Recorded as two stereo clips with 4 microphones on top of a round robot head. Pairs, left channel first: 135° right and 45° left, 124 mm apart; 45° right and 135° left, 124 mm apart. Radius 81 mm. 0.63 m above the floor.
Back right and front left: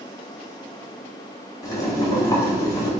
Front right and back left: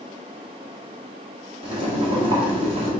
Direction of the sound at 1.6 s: 170° left.